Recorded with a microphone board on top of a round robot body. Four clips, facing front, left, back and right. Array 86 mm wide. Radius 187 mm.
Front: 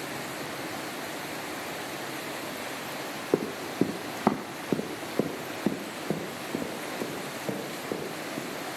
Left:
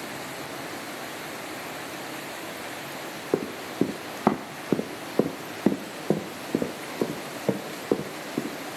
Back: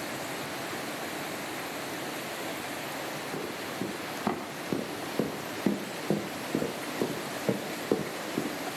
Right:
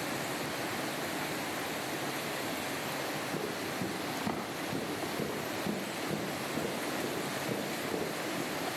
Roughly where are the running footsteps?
Ahead left.